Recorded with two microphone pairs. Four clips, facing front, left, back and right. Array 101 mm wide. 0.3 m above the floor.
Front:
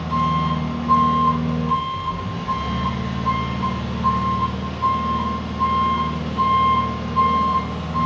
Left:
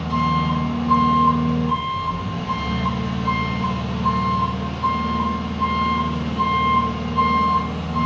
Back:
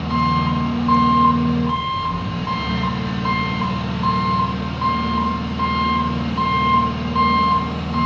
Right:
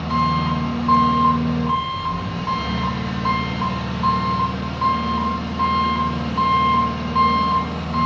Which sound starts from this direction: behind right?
An engine running, at 0.0 s.